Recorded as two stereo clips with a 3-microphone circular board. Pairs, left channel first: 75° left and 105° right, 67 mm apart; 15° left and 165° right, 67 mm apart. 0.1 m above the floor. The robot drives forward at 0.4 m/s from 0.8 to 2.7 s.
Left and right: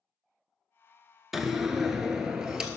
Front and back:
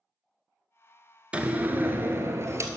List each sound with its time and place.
1.3 s a door slam: 175° left, 0.7 m; by 2.7 s straight behind, 1.0 m